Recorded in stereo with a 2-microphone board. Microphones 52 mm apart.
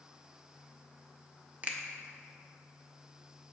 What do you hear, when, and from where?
1.6 s a finger snap: 30° right (ahead or behind), 0.7 m